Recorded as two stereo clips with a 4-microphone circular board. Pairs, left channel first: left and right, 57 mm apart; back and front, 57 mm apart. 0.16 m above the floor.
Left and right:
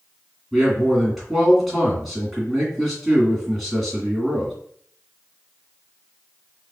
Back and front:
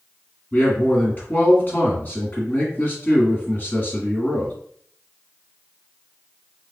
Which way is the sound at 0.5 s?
175° right.